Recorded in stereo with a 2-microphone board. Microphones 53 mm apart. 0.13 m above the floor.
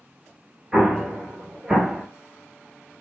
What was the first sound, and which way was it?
An explosion, 15° right (ahead or behind).